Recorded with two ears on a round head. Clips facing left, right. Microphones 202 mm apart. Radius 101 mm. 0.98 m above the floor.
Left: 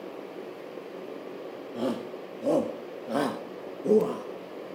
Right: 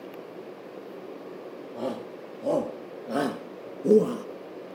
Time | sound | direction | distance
1.8 | a shout | 20° left (ahead or behind) | 2.5 m